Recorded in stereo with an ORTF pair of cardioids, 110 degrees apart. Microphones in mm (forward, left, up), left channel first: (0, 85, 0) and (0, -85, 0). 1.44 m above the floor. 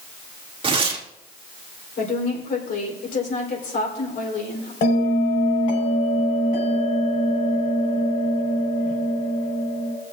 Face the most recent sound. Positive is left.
turn(degrees=60)